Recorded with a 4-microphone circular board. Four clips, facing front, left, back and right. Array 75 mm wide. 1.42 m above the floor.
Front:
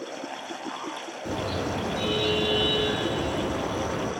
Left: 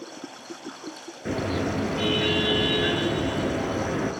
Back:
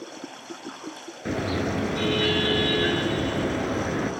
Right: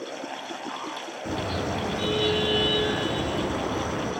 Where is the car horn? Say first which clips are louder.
Left 3 dB, back 3 dB; 150° left, 8.5 m.